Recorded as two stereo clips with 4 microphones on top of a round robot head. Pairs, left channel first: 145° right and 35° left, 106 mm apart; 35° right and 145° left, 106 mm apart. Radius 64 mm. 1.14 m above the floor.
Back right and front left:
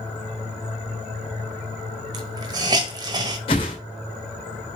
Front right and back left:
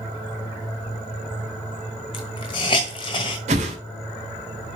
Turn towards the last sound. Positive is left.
turn(degrees=170)